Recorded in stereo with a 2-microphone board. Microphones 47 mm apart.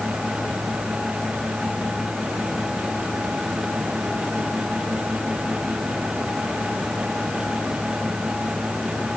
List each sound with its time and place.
Only background noise.